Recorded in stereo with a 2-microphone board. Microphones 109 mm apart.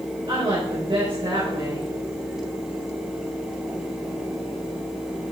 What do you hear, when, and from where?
0.3 s a woman speaking: 55° right (ahead or behind), 3.5 m